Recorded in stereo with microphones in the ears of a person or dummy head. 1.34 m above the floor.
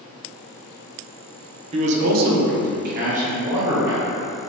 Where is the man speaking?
35° right (ahead or behind), 0.6 m; by 4.1 s 25° right (ahead or behind), 1.2 m.